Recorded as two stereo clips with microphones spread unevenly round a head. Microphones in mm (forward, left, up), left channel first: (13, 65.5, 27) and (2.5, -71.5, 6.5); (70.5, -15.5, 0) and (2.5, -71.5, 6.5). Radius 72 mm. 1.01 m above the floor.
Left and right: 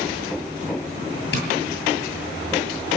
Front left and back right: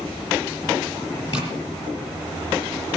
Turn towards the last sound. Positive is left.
turn(degrees=105)